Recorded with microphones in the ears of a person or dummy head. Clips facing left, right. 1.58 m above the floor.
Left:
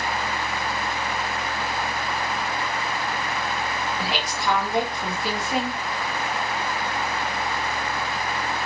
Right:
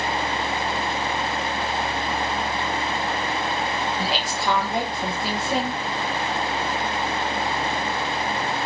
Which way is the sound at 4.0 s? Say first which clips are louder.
Right 2 dB; 25° right (ahead or behind).